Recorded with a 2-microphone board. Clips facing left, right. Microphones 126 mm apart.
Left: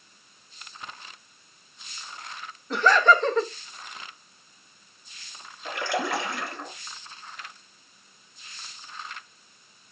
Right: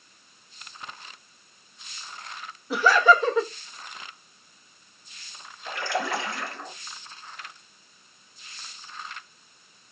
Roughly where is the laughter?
Centre.